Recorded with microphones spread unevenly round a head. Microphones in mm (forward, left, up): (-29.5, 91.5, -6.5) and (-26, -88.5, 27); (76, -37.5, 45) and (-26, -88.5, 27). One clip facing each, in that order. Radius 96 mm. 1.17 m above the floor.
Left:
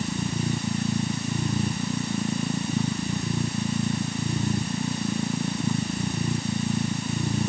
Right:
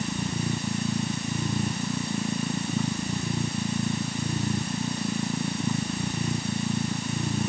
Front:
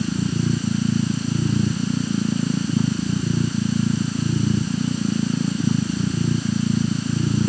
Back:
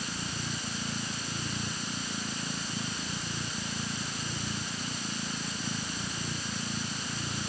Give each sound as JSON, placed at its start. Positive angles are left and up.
{"t": 0.0, "sound": "a machine running", "azimuth_deg": 0}